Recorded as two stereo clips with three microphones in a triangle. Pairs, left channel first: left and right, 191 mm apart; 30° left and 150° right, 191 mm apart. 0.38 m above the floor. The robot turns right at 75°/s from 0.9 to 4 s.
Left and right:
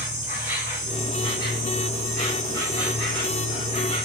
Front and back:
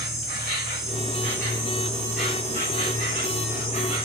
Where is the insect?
160° right, 2 m; by 4.0 s 70° left, 2 m.